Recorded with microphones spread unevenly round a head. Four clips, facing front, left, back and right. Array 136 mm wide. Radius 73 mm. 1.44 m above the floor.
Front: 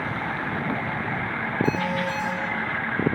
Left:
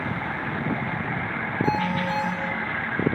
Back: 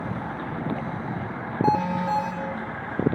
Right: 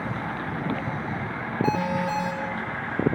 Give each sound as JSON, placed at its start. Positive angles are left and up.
{"t": 1.6, "sound": "an alarm", "azimuth_deg": -170, "distance_m": 8.0}